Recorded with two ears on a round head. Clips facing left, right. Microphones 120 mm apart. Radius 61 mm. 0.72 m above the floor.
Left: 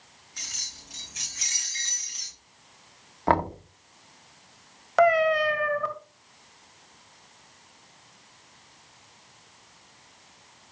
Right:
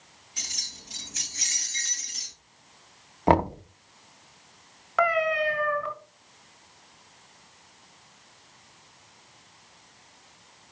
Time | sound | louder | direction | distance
0.4 | keys jangling | right 2 dB | 25° right (ahead or behind) | 5 m
3.3 | knocking | right 2 dB | 20° right (ahead or behind) | 0.6 m
5.0 | a cat meowing | left 4 dB | 45° left (ahead or behind) | 1.4 m